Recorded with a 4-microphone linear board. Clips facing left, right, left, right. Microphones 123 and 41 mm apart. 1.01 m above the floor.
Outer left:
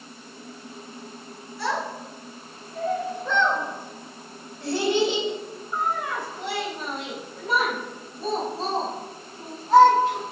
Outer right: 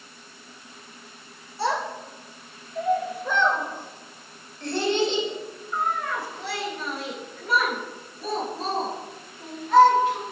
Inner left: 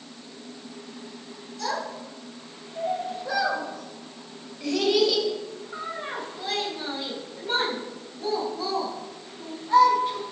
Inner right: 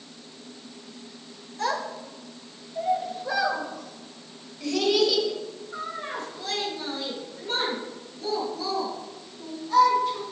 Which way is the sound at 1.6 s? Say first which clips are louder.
Outer right 2 dB, inner right 2 dB; 30° right (ahead or behind).